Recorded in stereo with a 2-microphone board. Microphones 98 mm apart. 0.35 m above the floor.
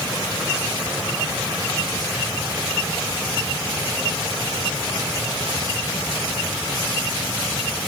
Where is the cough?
No cough in this recording.